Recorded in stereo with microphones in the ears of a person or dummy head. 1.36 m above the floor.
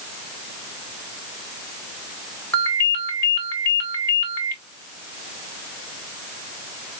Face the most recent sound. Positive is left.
turn(degrees=10)  # may be behind; listen again after turning